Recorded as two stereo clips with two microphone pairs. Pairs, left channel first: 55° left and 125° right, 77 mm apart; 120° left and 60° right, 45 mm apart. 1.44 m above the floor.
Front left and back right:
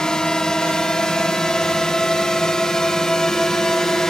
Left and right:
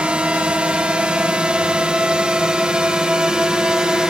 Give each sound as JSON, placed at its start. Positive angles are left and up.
{"t": 0.0, "sound": "a drone", "azimuth_deg": -20}